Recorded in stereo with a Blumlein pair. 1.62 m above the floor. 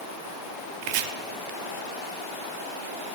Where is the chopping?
45° right, 0.6 m.